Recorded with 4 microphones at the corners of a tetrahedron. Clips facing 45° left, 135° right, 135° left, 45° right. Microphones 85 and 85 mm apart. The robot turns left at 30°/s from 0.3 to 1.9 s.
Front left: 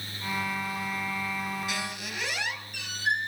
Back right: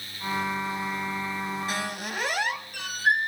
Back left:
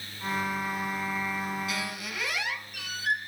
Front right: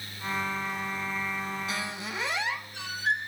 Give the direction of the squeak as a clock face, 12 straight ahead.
3 o'clock.